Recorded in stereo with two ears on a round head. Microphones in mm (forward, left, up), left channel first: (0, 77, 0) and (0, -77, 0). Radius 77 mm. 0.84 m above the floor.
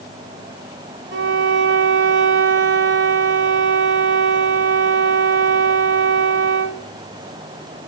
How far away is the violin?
About 1.2 m.